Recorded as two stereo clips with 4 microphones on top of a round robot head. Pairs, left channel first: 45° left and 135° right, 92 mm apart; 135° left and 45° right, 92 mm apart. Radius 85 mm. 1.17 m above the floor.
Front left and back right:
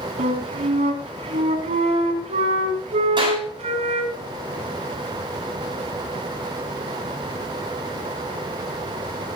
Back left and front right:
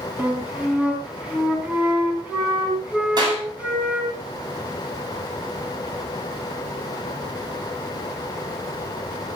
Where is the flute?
125° right, 3.5 m.